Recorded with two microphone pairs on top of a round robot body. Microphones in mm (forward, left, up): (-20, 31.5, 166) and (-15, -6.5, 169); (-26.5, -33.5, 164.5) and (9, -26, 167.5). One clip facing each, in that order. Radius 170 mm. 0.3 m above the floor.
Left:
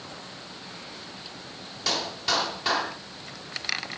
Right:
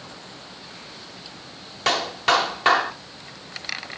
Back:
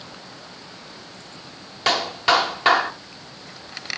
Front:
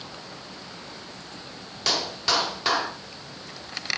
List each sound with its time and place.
1.9 s a clap: 120° right, 1.8 m